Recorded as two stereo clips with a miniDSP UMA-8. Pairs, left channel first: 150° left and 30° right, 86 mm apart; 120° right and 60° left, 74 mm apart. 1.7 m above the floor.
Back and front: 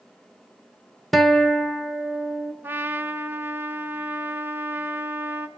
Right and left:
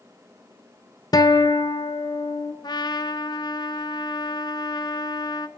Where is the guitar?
125° right, 1.3 m.